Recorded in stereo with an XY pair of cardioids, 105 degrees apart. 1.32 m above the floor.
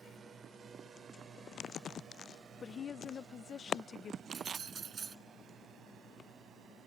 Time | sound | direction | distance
0.0 | a drone | 45° right | ?
2.6 | a woman speaking | 45° left | ?
4.3 | keys jangling | 45° right | ?